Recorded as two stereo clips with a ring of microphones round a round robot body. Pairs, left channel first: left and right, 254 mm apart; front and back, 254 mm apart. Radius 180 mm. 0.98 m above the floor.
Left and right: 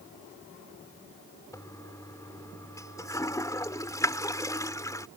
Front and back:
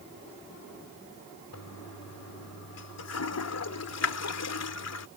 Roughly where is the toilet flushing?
Ahead.